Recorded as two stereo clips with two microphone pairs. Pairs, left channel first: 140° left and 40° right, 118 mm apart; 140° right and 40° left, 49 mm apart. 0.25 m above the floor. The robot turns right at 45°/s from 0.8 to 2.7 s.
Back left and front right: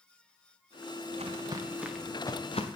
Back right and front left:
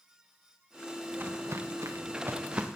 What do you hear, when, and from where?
1.1 s footsteps: 15° right, 2.5 m; by 2.7 s 110° left, 2 m